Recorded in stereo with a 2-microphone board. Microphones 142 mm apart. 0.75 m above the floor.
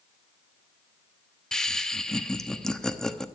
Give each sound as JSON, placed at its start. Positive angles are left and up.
{"t": 1.5, "sound": "laughter", "side_deg": 5, "distance_m": 0.9}